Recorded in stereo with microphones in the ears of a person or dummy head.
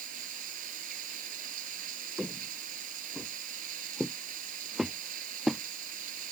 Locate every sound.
0.0 s running water: 50° right (ahead or behind)
2.2 s footsteps: 5° right (ahead or behind); by 5.6 s centre (ahead or behind)